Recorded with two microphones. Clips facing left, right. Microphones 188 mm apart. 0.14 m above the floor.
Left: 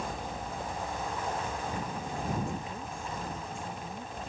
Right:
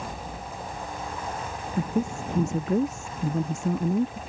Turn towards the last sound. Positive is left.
turn(degrees=-80)